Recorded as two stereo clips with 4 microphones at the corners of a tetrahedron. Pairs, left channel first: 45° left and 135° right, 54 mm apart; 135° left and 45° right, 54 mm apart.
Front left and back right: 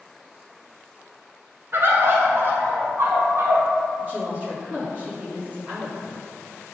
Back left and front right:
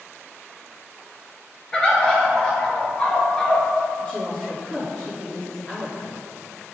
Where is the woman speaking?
165° right, 1.8 m.